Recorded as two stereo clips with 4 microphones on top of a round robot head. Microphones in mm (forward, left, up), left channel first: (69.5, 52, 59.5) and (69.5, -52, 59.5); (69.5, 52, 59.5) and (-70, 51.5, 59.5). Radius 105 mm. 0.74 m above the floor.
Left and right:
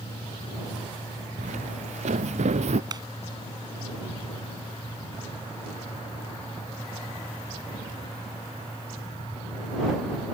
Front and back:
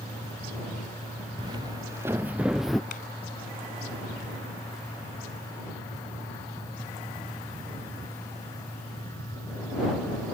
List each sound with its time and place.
1.4 s footsteps: 115° right; by 2.8 s 90° right
2.9 s a clap: 40° right